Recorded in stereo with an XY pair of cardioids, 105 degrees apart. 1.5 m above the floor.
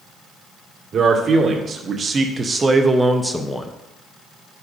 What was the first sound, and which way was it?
A man speaking, 55° right.